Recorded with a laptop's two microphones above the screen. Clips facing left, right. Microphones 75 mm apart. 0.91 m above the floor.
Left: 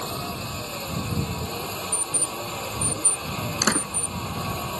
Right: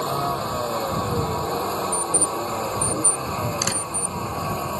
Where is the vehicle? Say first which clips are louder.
Right 8 dB; 40° right (ahead or behind); by 4.8 s 15° right (ahead or behind).